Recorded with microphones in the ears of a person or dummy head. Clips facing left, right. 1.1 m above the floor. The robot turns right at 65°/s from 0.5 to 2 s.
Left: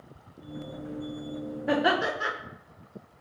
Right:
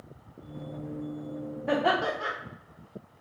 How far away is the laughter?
About 0.6 m.